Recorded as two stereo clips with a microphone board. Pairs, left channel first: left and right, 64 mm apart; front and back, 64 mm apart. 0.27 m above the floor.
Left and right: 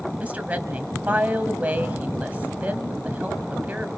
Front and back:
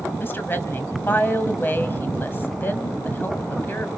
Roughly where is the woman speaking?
Ahead right.